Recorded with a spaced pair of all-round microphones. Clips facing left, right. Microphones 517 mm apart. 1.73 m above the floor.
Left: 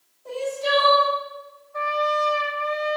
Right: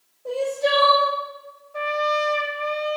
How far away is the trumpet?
About 1.1 m.